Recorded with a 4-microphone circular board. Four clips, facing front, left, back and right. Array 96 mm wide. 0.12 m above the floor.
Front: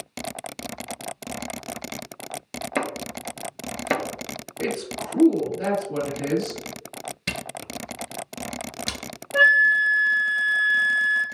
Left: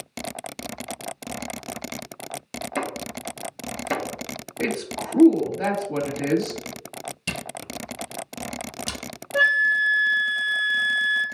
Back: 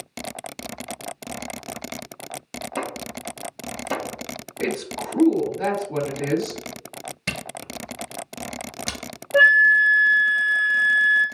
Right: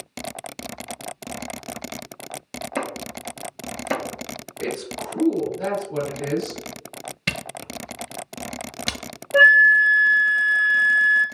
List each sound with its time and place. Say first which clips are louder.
2.8 s chopping: even, front 3 dB; 5° right, 1.0 m
4.6 s a woman speaking: left 2 dB, back 2 dB; 100° left, 2.5 m
7.3 s a camera shutter: right 5 dB, back 1 dB; 95° right, 0.7 m
9.3 s a flute: right 7 dB, back 3 dB; 100° right, 0.7 m